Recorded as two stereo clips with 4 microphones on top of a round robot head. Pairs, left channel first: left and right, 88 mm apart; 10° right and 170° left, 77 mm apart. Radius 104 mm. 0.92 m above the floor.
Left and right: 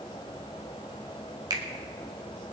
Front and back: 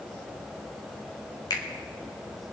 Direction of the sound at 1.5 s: 45° right.